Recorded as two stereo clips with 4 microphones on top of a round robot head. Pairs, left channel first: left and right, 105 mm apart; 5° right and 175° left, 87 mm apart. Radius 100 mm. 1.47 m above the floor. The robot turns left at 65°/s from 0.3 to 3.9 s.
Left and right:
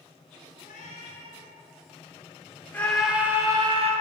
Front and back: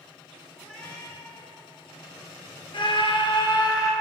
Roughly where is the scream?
Ahead.